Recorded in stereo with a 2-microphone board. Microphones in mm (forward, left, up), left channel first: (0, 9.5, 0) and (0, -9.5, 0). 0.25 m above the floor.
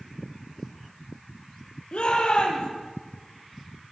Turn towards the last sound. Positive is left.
turn(degrees=60)  # may be behind; listen again after turning